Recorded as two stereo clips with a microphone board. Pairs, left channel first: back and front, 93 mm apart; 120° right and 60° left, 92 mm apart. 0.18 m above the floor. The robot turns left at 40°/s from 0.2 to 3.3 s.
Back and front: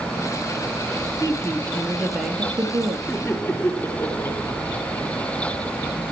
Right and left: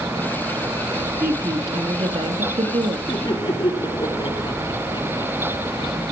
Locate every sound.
1.2 s a woman speaking: 120° left, 3.5 m; by 3.0 s 50° left, 3.5 m
3.1 s laughter: 115° right, 2 m; by 6.0 s 125° right, 2 m